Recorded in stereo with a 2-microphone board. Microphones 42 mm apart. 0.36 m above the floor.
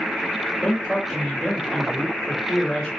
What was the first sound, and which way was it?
A man speaking, 30° left (ahead or behind).